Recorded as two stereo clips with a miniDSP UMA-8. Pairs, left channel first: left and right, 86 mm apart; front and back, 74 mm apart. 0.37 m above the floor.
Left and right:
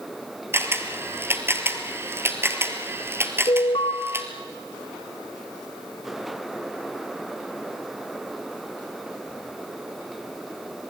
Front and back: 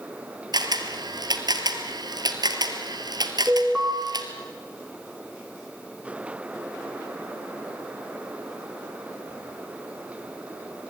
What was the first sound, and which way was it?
A camera shutter, 150° right.